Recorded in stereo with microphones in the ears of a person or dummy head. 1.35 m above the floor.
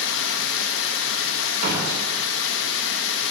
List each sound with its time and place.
0.0 s running water: 75° left (ahead or behind), 0.9 m
1.6 s a door slam: 60° right (ahead or behind), 3 m